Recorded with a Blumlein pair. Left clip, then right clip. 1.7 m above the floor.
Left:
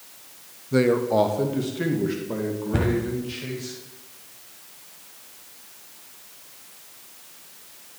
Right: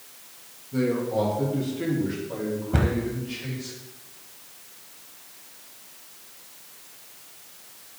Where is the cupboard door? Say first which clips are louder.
Left 2 dB; 5° right, 1.2 m.